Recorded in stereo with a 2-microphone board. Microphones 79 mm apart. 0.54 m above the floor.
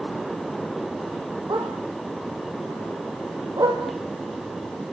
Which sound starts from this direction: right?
A dog barking, at 1.5 s.